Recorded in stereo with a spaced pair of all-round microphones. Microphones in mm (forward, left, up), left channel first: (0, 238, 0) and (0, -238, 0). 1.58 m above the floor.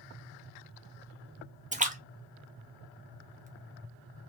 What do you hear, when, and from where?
1.7 s a splash: 15° right (ahead or behind), 0.6 m